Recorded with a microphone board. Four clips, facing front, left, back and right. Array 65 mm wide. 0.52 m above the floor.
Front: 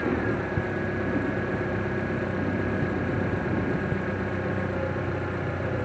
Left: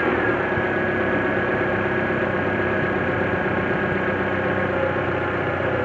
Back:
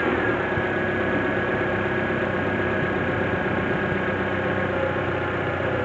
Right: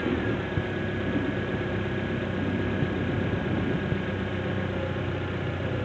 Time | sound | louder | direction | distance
0.0 | an engine running | left 8 dB, back 4 dB | 110° left | ?